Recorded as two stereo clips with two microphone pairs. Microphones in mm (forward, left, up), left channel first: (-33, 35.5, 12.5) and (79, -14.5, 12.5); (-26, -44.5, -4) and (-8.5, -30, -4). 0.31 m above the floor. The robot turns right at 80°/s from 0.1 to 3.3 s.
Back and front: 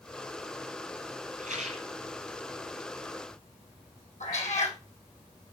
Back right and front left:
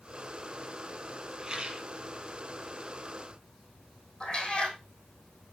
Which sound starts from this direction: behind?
A cat meowing, at 4.2 s.